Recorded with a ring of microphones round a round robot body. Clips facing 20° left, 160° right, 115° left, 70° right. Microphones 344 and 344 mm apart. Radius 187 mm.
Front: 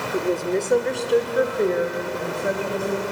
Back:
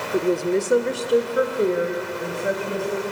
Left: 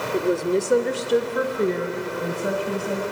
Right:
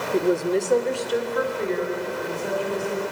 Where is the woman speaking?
120° right, 1.0 m; by 3.0 s 110° left, 2.5 m.